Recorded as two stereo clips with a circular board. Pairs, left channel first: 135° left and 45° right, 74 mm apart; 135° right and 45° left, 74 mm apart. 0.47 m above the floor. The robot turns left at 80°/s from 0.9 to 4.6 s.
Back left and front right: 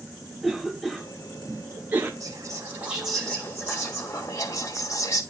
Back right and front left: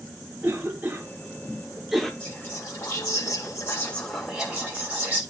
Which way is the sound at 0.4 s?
45° left.